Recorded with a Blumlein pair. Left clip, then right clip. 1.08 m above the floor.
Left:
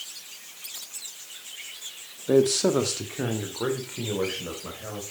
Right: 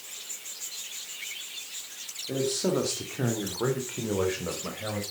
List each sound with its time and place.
2.3 s a man speaking: 35° left, 1.8 m; by 5.0 s 10° right, 5 m